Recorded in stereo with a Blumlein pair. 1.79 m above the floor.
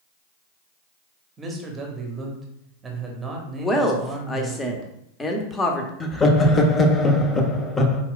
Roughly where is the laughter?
Ahead.